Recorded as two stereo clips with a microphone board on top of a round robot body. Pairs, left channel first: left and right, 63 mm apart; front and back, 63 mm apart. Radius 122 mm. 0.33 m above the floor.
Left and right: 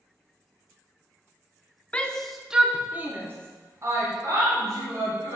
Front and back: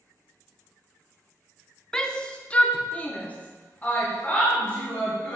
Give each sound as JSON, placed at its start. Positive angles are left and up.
{"t": 1.9, "sound": "a shout", "azimuth_deg": 60, "distance_m": 0.9}